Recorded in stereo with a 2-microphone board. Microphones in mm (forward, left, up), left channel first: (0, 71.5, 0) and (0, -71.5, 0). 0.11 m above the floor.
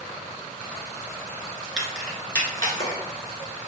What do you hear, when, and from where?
1.8 s keys jangling: 5° right (ahead or behind), 1.0 m; by 3.0 s 35° left (ahead or behind), 1.1 m